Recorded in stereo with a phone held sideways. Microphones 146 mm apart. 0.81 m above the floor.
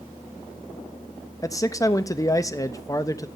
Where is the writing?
No writing in this recording.